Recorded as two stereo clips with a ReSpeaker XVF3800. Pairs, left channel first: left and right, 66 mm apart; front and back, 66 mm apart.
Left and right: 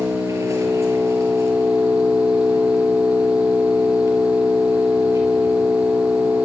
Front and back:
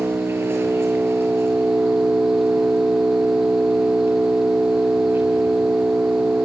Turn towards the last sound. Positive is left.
turn(degrees=-125)